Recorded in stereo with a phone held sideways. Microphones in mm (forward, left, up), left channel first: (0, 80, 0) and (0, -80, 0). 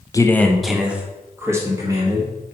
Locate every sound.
0.1 s a man speaking: 20° left (ahead or behind), 0.6 m; by 2.3 s 25° right (ahead or behind), 1.8 m